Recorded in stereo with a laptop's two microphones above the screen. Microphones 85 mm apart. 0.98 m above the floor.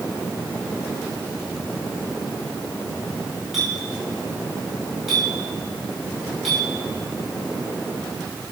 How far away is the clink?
About 5 m.